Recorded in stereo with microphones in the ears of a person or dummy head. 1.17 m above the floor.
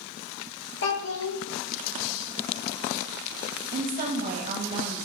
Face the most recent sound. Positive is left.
turn(degrees=-30)  # may be behind; listen again after turning